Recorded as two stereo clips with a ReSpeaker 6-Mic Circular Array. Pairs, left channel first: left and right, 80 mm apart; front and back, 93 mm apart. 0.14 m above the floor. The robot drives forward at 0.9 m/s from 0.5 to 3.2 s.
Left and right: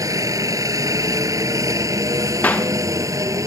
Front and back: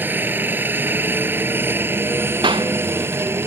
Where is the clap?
160° left.